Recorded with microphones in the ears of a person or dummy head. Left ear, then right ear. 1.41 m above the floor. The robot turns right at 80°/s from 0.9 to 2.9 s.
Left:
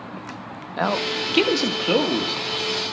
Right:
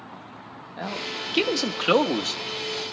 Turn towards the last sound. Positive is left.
turn(degrees=-55)